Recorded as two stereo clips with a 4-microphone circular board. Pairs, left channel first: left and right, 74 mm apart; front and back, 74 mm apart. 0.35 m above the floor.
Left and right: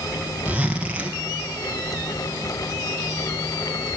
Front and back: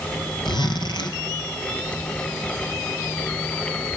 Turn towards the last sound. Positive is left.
turn(degrees=-15)